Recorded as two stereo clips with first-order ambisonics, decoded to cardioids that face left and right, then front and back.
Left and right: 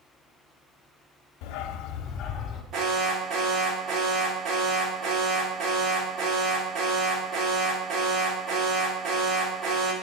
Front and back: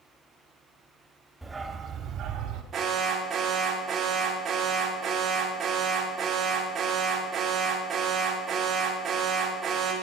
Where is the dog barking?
95° left, 1.2 m; by 2.6 s 150° left, 1.7 m.